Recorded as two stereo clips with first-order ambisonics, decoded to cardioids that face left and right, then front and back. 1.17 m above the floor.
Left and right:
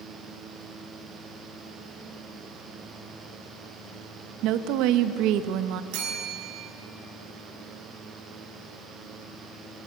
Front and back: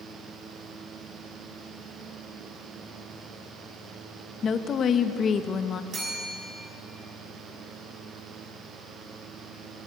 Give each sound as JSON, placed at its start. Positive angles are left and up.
{"t": 4.4, "sound": "a woman speaking", "azimuth_deg": -65, "distance_m": 1.4}
{"t": 5.9, "sound": "a bell", "azimuth_deg": -110, "distance_m": 6.5}